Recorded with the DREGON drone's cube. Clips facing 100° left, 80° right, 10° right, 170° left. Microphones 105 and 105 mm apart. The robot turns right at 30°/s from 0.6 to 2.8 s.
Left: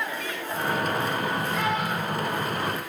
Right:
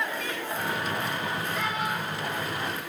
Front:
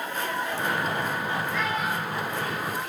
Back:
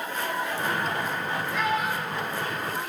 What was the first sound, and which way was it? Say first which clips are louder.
A child speaking: left 3 dB, back 1 dB; 95° left.